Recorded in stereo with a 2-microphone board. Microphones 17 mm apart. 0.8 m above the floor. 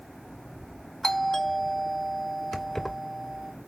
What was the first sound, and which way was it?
A doorbell, 10° left (ahead or behind).